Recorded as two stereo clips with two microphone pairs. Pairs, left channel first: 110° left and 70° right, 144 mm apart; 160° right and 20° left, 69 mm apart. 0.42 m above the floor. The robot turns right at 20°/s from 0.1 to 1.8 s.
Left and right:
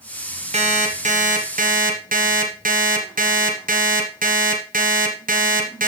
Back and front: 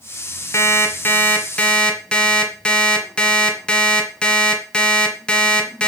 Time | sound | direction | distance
0.5 | an alarm clock | 110° right | 1.8 m